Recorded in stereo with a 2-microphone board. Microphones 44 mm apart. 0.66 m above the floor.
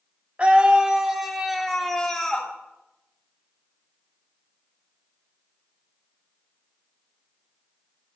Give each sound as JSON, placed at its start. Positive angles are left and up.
{"t": 0.4, "sound": "a scream", "side_deg": -30, "distance_m": 1.7}